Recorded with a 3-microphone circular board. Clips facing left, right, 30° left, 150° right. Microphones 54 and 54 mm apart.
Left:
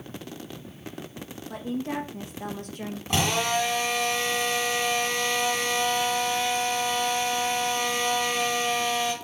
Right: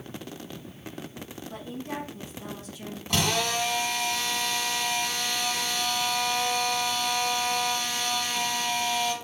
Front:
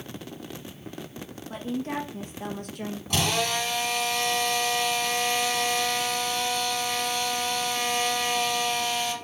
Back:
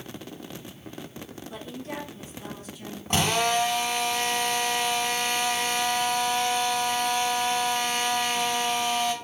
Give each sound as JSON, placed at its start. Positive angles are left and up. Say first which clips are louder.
{"t": 1.5, "sound": "a woman speaking", "louder": "left 6 dB, front 7 dB", "azimuth_deg": 75, "distance_m": 1.8}
{"t": 3.1, "sound": "a drill", "louder": "left 2 dB, back 3 dB", "azimuth_deg": 155, "distance_m": 2.5}